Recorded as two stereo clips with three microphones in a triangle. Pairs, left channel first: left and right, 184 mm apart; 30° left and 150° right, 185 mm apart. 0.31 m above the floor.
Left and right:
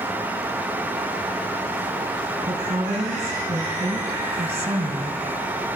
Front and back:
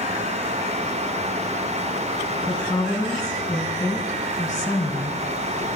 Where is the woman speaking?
40° right, 3 m.